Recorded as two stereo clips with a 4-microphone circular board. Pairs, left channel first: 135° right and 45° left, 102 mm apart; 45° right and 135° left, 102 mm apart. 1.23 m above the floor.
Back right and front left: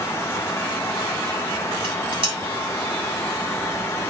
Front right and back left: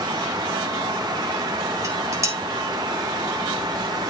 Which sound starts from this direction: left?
Dishes clattering, at 1.8 s.